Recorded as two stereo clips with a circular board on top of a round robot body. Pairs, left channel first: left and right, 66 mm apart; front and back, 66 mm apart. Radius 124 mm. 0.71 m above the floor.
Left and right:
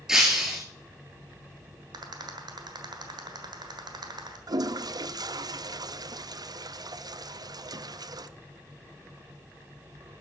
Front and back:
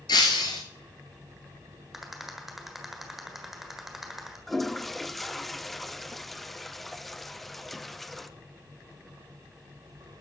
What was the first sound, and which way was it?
Breaking glass, 10° right.